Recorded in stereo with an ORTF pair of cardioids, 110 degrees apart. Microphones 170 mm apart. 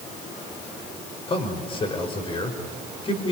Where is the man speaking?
30° left, 5 m.